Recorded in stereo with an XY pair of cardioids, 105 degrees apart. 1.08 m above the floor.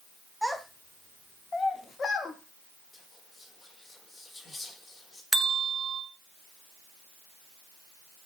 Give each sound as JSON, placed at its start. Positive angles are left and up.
{"t": 0.4, "sound": "a child speaking", "azimuth_deg": 5, "distance_m": 1.3}
{"t": 2.9, "sound": "whispering", "azimuth_deg": 25, "distance_m": 1.1}
{"t": 5.3, "sound": "a bell", "azimuth_deg": -15, "distance_m": 0.8}